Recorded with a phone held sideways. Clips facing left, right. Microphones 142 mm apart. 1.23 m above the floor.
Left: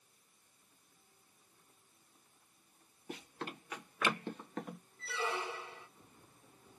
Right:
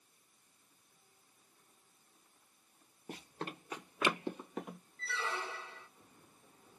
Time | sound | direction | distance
3.1 | running footsteps | 40° right (ahead or behind) | 1.6 m
5.0 | a squeak | 10° left (ahead or behind) | 1.4 m